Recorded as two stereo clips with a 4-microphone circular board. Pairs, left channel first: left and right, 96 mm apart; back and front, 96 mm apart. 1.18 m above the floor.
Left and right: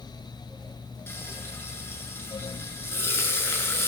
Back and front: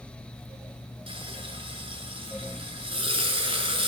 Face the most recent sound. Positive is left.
turn(degrees=25)